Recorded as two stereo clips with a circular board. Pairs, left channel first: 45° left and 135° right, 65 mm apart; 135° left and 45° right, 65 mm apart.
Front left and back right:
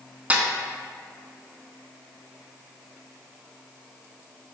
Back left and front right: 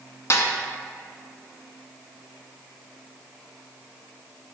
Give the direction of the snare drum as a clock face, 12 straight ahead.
7 o'clock.